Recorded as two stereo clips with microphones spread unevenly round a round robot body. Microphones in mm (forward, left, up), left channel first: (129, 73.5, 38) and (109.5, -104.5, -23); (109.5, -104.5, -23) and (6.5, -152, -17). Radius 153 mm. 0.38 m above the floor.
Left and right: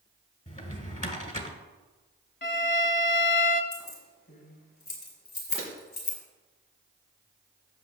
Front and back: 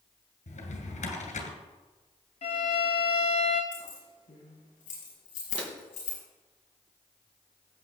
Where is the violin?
60° left, 1.2 m.